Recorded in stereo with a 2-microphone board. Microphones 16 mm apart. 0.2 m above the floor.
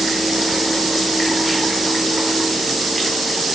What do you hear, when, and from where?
Only background noise.